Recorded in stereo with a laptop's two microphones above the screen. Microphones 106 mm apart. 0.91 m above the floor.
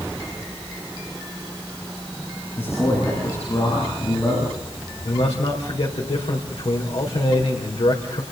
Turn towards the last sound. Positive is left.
turn(degrees=70)  # may be behind; listen again after turning